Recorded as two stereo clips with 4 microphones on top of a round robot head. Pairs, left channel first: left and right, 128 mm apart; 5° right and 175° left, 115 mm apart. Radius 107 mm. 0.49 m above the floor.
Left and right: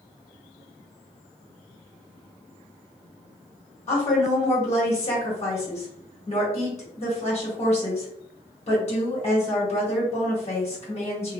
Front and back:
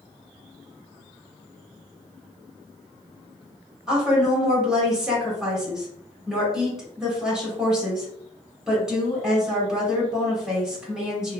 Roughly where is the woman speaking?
Left.